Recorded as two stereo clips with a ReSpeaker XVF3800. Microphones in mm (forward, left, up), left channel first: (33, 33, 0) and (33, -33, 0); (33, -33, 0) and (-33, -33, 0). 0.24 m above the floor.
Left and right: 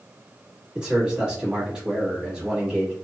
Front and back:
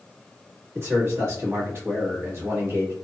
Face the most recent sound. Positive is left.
turn(degrees=-160)